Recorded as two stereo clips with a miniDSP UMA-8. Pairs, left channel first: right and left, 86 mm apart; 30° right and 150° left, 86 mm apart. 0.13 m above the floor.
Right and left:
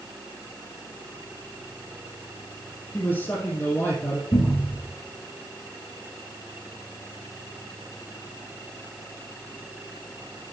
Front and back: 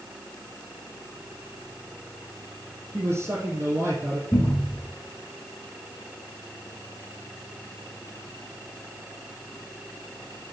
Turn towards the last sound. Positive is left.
turn(degrees=-65)